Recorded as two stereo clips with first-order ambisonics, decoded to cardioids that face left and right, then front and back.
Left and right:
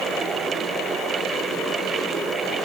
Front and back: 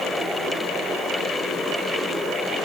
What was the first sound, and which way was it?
Only background noise.